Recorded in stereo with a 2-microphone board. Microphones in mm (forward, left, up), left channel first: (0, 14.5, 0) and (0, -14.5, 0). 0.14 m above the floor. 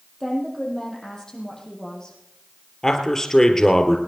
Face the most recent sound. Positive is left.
turn(degrees=20)  # may be behind; listen again after turning